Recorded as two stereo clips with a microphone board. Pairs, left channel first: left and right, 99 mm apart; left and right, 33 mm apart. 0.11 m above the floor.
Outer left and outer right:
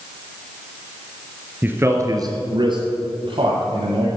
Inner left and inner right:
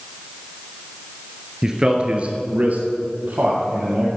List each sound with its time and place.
1.6 s a man speaking: 15° right (ahead or behind), 1.4 m; by 4.1 s 60° right (ahead or behind), 3 m